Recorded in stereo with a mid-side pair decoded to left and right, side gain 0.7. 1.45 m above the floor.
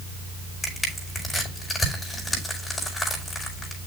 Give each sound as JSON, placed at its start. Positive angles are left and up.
{"t": 0.6, "sound": "crushing", "azimuth_deg": 15, "distance_m": 5.0}